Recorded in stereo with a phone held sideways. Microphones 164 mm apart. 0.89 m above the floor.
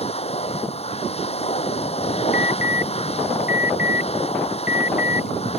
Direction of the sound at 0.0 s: 40° left (ahead or behind).